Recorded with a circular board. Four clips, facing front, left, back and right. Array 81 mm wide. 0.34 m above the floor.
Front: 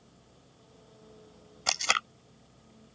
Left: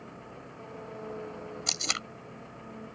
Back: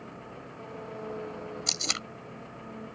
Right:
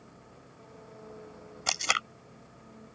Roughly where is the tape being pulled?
Ahead right.